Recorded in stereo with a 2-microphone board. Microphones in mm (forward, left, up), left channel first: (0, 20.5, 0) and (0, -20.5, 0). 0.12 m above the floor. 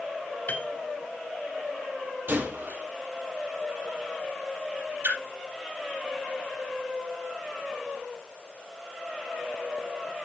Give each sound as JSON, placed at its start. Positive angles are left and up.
{"t": 0.5, "sound": "a piano", "side_deg": 45, "distance_m": 0.9}
{"t": 2.3, "sound": "a gunshot", "side_deg": -55, "distance_m": 2.0}
{"t": 5.0, "sound": "a splash", "side_deg": -60, "distance_m": 3.0}